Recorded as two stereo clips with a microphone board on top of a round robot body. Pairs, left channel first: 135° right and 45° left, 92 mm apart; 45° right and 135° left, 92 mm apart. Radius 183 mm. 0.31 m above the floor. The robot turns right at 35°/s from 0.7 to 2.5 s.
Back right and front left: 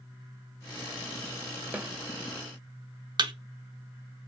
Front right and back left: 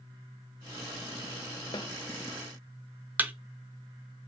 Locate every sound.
1.7 s a snare drum: 25° right, 0.7 m; by 1.9 s 20° right, 0.7 m
3.2 s a thud: 65° left, 0.7 m